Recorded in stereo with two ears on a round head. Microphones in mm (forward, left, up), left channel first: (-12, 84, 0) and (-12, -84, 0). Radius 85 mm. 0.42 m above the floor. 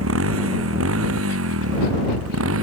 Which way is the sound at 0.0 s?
85° right.